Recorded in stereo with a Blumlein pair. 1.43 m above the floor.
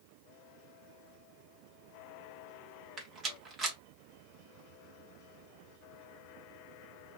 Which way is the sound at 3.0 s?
25° right.